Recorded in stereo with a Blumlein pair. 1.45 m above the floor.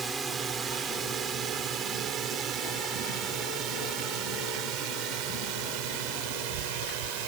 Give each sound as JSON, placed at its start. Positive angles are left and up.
{"t": 0.0, "sound": "a drone", "azimuth_deg": -15}